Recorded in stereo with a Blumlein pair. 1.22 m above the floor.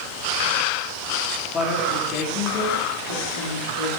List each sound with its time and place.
1.5 s a woman speaking: 25° left, 3 m; by 3.9 s 80° left, 3 m